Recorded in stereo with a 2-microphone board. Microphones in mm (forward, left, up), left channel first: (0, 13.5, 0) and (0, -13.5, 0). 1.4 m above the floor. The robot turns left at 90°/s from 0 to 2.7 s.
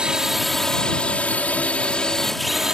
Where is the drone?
145° right; by 2.7 s 30° right.